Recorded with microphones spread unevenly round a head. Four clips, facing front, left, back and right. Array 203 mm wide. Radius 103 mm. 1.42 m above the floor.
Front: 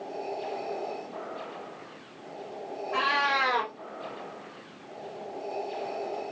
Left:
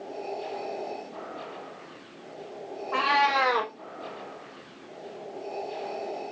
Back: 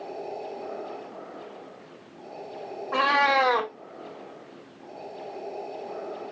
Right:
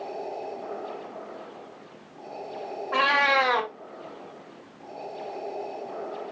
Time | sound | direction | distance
2.9 | a cat meowing | 150° right | 0.8 m